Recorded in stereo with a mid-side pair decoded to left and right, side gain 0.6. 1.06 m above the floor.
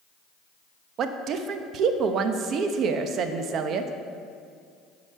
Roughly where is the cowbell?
I don't hear a cowbell.